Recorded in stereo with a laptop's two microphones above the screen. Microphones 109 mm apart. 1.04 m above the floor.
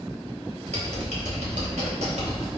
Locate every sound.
0.7 s typing on a keyboard: 90° right, 3.5 m